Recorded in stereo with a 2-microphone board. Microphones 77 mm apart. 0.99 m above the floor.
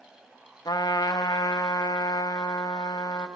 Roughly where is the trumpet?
Left.